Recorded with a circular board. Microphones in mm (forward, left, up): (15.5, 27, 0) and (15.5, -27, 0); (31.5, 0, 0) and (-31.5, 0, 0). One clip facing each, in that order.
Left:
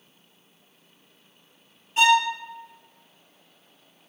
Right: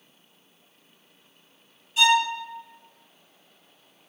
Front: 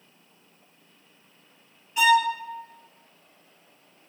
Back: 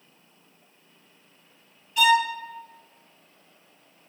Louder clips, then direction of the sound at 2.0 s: Left 2 dB, even; 60° left.